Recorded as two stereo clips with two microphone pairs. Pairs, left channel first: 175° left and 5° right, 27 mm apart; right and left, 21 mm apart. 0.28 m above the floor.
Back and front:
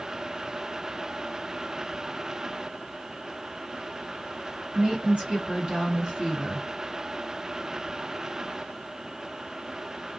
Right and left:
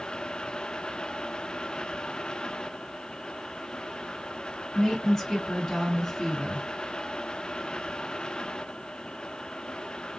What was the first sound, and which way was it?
A woman speaking, 30° right.